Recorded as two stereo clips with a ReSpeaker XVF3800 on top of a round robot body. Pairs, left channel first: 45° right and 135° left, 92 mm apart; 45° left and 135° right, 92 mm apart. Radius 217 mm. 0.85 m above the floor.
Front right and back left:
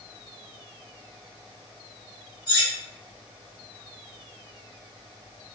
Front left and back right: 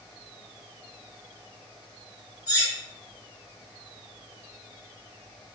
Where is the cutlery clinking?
10° right, 1.3 m.